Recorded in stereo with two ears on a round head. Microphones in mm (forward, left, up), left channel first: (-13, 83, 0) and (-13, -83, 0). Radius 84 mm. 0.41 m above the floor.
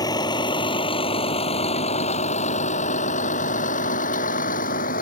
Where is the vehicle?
20° left (ahead or behind); by 5.0 s 50° left (ahead or behind).